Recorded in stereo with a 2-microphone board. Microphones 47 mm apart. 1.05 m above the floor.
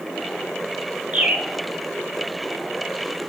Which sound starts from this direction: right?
A bird, at 1.1 s.